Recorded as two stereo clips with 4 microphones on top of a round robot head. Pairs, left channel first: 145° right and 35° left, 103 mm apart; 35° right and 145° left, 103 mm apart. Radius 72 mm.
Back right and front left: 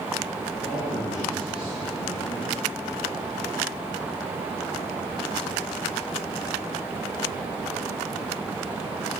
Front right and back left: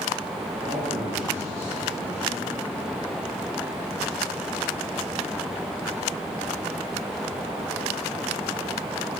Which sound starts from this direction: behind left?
A man speaking, at 0.6 s.